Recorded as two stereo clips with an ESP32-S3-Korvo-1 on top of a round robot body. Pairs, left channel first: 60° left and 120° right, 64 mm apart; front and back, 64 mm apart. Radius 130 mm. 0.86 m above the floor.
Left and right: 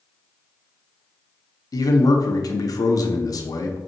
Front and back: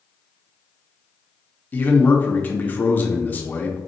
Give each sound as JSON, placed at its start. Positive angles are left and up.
{"t": 1.7, "sound": "a man speaking", "azimuth_deg": 60, "distance_m": 0.8}